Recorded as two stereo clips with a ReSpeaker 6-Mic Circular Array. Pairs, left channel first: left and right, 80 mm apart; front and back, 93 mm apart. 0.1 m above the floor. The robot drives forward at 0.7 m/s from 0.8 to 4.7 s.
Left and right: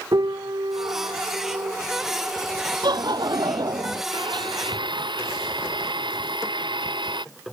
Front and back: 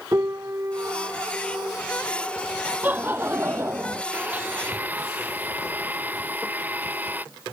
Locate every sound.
0.1 s a piano: 120° right; by 1.8 s 125° right
2.8 s laughter: 110° right; by 4.0 s 120° right
4.1 s a blender: 105° right; by 7.2 s 110° right